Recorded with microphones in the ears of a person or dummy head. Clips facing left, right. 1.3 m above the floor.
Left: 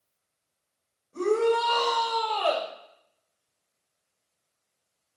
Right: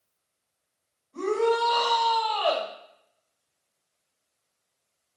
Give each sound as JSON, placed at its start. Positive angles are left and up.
{"t": 1.1, "sound": "a shout", "side_deg": 35, "distance_m": 4.5}